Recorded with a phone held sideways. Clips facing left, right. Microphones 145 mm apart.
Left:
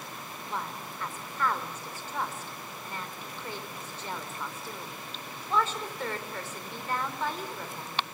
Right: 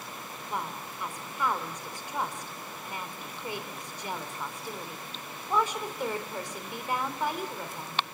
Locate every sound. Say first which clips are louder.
0.5 s a woman speaking: right 1 dB; 15° right (ahead or behind), 3.5 m